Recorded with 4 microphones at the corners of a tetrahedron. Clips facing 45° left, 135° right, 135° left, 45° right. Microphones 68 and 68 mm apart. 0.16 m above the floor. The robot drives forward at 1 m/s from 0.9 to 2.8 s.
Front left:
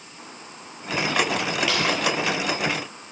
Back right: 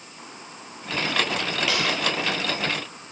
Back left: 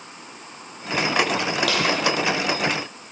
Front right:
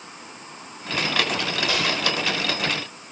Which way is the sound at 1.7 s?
135° left.